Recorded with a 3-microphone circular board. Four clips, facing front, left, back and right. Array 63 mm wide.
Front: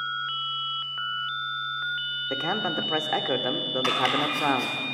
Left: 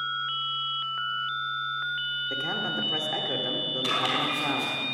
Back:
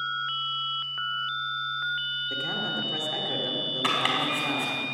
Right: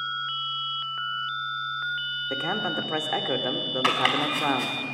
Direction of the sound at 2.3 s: 30° right.